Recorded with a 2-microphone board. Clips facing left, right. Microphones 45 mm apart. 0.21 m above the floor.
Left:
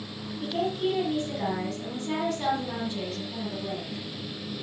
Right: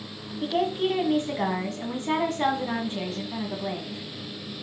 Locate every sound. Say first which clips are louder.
0.4 s a woman speaking: right 3 dB; 45° right (ahead or behind), 1.7 m